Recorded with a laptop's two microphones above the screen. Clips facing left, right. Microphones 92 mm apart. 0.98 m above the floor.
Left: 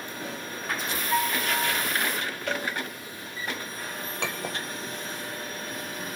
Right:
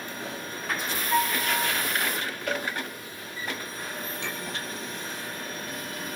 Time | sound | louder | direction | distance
1.1 | a piano | right 1 dB | 5° left (ahead or behind) | 4 m
2.5 | a cowbell | right 1 dB | 5° right (ahead or behind) | 1.2 m
4.2 | a clink | left 6 dB | 85° left | 2 m